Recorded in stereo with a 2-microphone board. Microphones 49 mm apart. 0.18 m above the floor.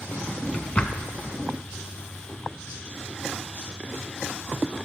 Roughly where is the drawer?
Left.